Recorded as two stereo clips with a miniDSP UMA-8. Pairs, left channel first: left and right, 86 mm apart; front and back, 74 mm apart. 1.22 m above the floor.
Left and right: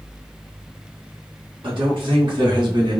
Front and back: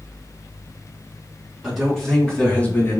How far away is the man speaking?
About 1.7 m.